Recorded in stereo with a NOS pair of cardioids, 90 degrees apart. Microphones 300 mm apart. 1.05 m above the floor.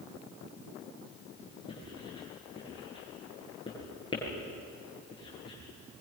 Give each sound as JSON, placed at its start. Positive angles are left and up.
{"t": 1.7, "sound": "writing", "azimuth_deg": 15, "distance_m": 9.5}